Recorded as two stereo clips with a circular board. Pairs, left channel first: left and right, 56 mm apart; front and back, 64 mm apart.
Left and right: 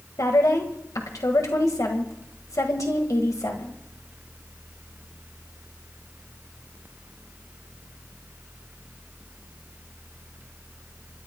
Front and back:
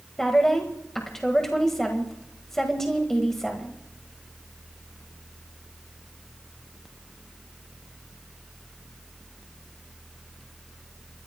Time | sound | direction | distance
0.2 | a woman speaking | 85° left | 1.6 m